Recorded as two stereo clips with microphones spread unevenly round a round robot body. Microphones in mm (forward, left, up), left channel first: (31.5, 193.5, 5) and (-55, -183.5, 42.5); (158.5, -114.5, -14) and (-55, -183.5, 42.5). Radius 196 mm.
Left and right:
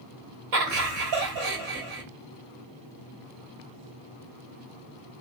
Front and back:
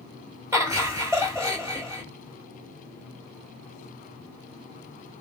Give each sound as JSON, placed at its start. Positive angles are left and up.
{"t": 0.5, "sound": "laughter", "azimuth_deg": -80, "distance_m": 2.0}